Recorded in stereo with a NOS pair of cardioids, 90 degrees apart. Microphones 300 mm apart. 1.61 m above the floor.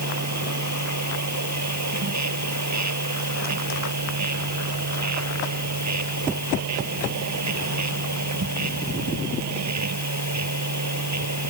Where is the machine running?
60° right.